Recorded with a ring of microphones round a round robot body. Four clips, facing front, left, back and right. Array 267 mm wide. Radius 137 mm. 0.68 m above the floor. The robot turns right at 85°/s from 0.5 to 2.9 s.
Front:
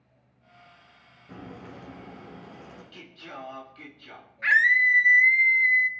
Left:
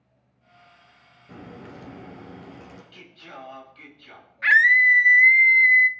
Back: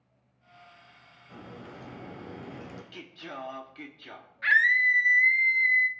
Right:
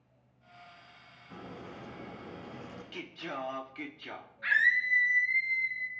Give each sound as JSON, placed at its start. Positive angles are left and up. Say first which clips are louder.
{"t": 1.3, "sound": "a crack", "louder": "left 4 dB, front 2 dB", "azimuth_deg": 50, "distance_m": 2.5}
{"t": 2.9, "sound": "singing", "louder": "right 4 dB, even", "azimuth_deg": -115, "distance_m": 1.3}
{"t": 4.4, "sound": "a scream", "louder": "left 11 dB, front 2 dB", "azimuth_deg": 85, "distance_m": 0.9}